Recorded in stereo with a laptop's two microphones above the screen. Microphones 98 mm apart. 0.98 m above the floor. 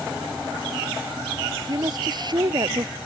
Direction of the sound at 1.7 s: 45° right (ahead or behind).